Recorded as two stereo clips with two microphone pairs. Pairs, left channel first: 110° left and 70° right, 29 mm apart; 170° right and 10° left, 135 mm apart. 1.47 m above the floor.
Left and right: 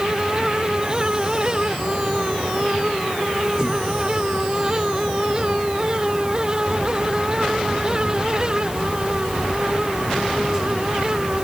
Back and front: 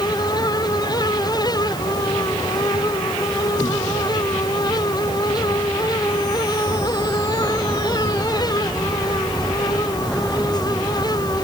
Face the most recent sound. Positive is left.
No sound to turn to.